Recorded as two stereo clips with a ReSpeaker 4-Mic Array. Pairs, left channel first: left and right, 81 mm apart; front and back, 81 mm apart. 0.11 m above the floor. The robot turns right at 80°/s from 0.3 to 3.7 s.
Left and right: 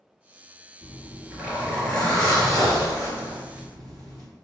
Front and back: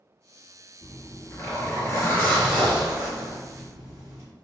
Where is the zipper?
65° right, 2.0 m; by 4.3 s 170° left, 2.0 m.